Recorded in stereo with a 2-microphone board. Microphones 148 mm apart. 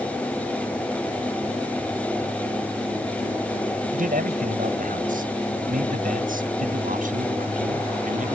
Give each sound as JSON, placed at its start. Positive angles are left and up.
{"t": 3.9, "sound": "a man speaking", "side_deg": -90}